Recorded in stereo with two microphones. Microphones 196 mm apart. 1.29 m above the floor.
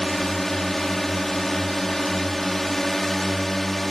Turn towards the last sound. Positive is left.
turn(degrees=0)  # may be behind; listen again after turning